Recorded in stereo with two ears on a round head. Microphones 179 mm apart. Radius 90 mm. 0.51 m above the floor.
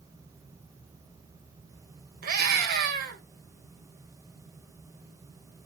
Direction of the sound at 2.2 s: 50° right (ahead or behind).